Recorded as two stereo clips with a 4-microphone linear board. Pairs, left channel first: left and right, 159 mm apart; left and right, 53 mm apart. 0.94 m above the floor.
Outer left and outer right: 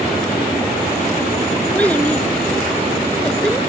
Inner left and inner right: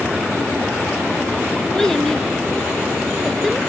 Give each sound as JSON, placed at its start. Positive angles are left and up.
{"t": 1.7, "sound": "a child speaking", "side_deg": 10}